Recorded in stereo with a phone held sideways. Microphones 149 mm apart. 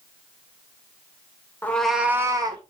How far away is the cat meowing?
About 0.7 m.